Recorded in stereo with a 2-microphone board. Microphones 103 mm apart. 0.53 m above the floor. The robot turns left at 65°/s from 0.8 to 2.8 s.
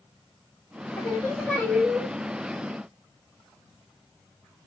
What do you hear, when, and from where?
1.0 s singing: 60° left, 1.5 m; by 2.1 s 15° right, 1.5 m